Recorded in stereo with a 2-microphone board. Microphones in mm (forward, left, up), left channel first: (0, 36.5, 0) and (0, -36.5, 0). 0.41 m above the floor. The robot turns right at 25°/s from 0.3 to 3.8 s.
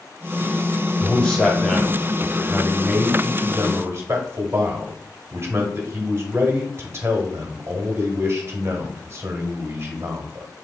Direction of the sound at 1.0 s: 155° left.